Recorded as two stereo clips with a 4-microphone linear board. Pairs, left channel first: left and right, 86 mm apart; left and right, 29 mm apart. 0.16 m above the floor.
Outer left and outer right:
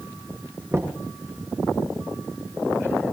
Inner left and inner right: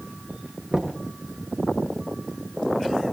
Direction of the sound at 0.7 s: 35° right (ahead or behind).